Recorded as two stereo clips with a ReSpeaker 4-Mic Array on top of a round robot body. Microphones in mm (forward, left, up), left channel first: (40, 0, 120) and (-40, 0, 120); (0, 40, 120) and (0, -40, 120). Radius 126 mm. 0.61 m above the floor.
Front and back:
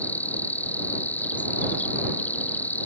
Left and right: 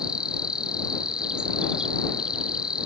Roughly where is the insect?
Ahead right.